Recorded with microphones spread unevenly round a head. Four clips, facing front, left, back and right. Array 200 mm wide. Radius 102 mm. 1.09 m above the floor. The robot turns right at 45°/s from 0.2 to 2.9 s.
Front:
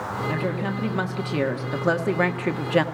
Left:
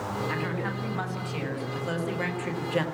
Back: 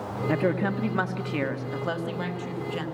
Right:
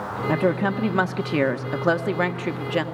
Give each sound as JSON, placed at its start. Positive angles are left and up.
{"t": 0.3, "sound": "a woman speaking", "azimuth_deg": -125, "distance_m": 1.8}